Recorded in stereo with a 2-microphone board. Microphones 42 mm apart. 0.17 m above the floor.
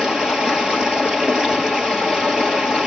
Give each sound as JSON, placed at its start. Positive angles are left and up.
{"t": 0.0, "sound": "running water", "side_deg": -15, "distance_m": 2.0}